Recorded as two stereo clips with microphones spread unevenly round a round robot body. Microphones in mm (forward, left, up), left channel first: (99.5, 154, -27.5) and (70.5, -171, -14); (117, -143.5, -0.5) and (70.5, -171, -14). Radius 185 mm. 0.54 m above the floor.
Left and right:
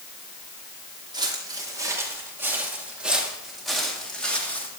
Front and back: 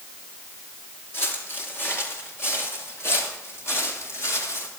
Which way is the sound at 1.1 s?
20° right.